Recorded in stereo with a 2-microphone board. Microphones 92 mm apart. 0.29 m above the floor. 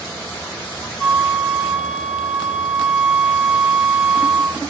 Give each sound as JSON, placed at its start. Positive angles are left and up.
{"t": 1.0, "sound": "a flute", "side_deg": -10, "distance_m": 0.9}